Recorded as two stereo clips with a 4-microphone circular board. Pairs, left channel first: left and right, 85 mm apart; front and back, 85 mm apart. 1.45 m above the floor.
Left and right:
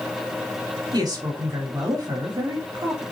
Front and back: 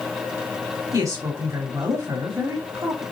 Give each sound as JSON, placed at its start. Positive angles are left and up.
{"t": 0.9, "sound": "a woman speaking", "azimuth_deg": -130, "distance_m": 3.5}